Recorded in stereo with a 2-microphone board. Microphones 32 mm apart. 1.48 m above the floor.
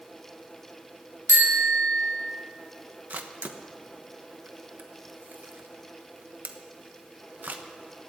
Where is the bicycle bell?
80° right, 2.5 m.